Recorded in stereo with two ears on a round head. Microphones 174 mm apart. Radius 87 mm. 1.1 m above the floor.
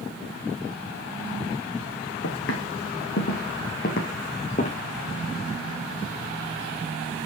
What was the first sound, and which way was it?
Footsteps, 65° left (ahead or behind).